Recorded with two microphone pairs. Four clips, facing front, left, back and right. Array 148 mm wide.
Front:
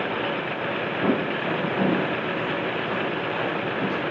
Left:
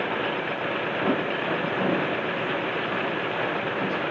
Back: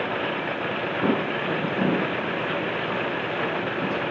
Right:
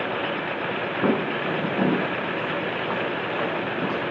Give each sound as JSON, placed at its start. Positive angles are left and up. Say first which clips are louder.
{"t": 1.0, "sound": "footsteps", "louder": "right 3 dB, even", "azimuth_deg": -100, "distance_m": 5.5}